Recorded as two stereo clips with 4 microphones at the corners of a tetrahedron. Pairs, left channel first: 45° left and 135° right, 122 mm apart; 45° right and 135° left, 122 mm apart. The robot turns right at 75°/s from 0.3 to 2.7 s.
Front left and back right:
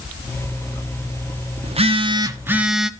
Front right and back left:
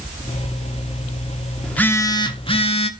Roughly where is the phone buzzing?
Behind right.